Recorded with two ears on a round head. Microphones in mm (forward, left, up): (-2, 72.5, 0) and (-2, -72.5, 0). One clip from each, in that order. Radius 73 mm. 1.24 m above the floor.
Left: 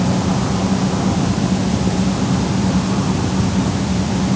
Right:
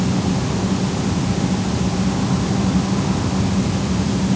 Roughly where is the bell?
I don't hear a bell.